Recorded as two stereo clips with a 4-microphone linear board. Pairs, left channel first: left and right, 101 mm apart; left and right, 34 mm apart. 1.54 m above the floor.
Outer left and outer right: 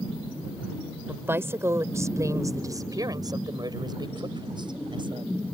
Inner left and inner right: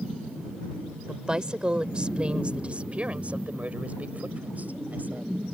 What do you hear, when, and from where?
1.1 s a woman speaking: 20° right (ahead or behind); by 5.3 s 50° right (ahead or behind)